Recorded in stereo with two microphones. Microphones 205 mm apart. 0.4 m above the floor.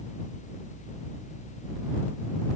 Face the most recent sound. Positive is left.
No sound to turn to.